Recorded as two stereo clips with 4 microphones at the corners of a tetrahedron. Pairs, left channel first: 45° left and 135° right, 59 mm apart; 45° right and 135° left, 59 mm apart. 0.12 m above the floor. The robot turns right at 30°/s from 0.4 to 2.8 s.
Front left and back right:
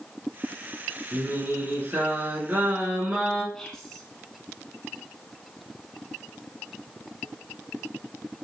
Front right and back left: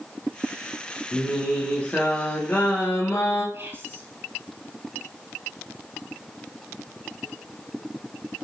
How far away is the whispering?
About 1.6 m.